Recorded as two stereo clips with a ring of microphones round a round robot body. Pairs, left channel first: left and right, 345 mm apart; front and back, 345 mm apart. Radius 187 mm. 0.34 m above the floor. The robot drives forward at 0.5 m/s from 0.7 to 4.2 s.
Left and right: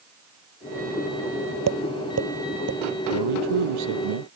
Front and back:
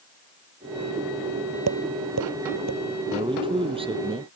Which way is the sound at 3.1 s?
105° right.